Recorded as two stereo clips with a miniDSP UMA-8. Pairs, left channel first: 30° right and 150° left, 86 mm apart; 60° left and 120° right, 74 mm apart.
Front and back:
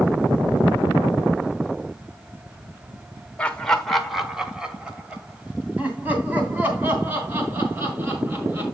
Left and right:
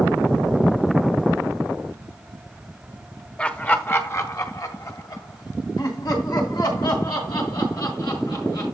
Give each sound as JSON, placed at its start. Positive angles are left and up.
{"t": 3.4, "sound": "laughter", "azimuth_deg": 15, "distance_m": 1.1}